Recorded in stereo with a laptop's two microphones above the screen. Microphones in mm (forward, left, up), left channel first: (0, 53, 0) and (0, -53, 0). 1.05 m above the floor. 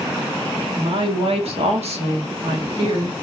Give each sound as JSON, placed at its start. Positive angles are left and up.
{"t": 0.8, "sound": "a woman speaking", "side_deg": -55, "distance_m": 3.0}